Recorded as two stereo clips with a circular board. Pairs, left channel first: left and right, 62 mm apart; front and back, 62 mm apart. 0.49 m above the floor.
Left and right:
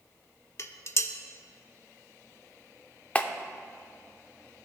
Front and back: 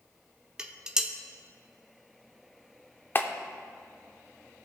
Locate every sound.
0.6 s dishes clattering: 105° left, 0.6 m
3.1 s a clap: 30° left, 0.6 m